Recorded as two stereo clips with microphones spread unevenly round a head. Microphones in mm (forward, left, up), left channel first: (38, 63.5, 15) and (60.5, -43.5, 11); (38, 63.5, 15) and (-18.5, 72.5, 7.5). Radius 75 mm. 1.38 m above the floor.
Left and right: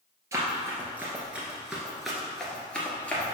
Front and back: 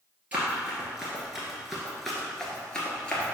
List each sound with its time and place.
0.3 s running footsteps: 125° right, 1.5 m; by 3.3 s 35° left, 1.6 m